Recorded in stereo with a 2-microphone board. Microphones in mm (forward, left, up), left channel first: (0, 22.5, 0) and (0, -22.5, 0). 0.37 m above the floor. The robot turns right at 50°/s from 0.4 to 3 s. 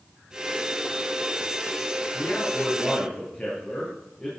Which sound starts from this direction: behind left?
A man speaking, at 2.1 s.